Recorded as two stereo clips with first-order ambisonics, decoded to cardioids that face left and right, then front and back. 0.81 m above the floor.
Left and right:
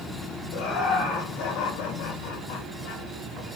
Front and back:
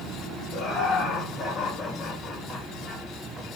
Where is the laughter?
55° left, 3 m; by 3.0 s 85° left, 2.0 m.